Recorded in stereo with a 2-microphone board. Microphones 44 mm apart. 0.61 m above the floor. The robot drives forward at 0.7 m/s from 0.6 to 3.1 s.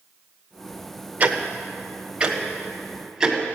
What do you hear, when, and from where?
1.2 s ticking: 40° right (ahead or behind), 0.8 m; by 3.4 s 15° right (ahead or behind), 2.0 m